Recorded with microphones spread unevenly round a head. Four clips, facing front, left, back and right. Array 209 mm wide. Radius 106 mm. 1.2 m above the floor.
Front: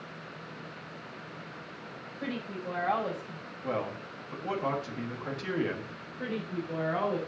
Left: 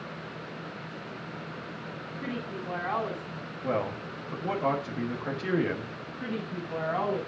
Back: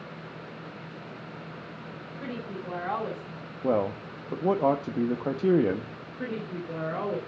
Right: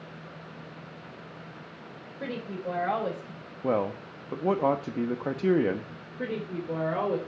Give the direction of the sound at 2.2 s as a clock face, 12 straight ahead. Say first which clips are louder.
Right 2 dB, even; 3 o'clock.